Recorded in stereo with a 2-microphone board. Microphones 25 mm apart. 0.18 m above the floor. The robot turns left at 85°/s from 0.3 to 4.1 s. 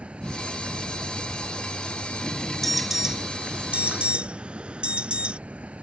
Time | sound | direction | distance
0.0 | an insect | 115° right | ?
2.6 | an alarm | 10° left | ?